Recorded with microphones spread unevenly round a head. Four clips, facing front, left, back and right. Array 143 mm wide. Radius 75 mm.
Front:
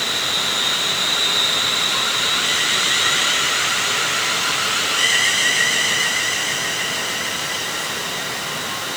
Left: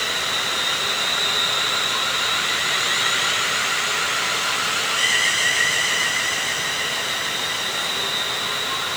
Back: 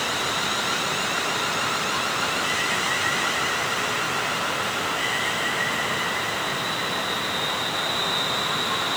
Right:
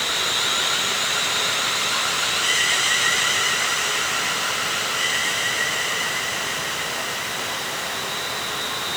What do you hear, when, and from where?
Only background noise.